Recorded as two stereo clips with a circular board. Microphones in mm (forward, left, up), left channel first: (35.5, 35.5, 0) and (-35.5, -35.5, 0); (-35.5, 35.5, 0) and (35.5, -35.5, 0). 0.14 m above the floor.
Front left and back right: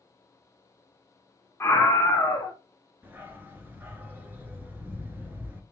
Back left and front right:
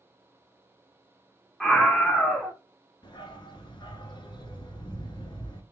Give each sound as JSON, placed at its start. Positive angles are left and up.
{"t": 1.6, "sound": "a scream", "azimuth_deg": 60, "distance_m": 1.2}
{"t": 3.0, "sound": "a dog barking", "azimuth_deg": 160, "distance_m": 0.9}